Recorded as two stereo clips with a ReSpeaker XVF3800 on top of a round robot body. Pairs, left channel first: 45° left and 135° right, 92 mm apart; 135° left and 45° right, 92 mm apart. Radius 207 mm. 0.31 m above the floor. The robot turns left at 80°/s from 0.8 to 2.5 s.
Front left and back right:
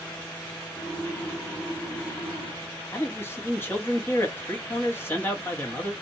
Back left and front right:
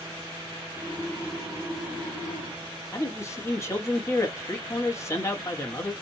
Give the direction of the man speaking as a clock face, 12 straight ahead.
9 o'clock.